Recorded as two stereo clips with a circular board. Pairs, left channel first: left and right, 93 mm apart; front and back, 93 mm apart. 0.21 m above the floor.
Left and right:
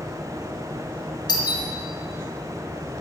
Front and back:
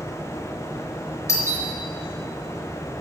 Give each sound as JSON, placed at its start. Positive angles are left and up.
{"t": 1.3, "sound": "a doorbell", "azimuth_deg": 55, "distance_m": 4.0}